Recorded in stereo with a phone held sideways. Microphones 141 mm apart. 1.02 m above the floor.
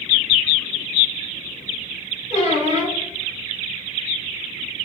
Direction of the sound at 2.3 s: 55° left (ahead or behind).